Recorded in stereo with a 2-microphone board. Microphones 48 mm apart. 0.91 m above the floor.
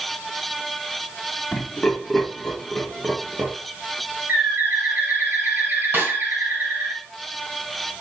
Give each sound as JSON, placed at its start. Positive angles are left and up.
{"t": 1.5, "sound": "laughter", "side_deg": 30, "distance_m": 1.8}
{"t": 4.3, "sound": "a bird", "side_deg": -55, "distance_m": 1.3}
{"t": 5.9, "sound": "a snare drum", "side_deg": -50, "distance_m": 2.0}